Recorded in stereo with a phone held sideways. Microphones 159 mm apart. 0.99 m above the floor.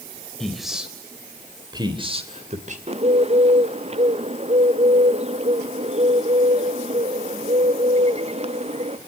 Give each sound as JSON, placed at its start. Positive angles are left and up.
{"t": 0.4, "sound": "a man speaking", "side_deg": 0, "distance_m": 3.5}
{"t": 2.9, "sound": "a bird", "side_deg": -40, "distance_m": 0.6}